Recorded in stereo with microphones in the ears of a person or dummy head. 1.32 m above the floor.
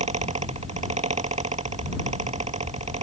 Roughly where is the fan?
Right.